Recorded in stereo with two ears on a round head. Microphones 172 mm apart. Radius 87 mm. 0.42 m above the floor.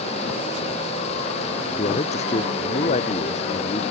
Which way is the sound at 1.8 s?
35° left (ahead or behind).